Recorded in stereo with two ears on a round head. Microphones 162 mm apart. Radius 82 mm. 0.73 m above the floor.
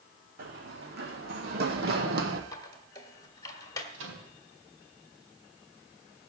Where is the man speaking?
No man speaking in this recording.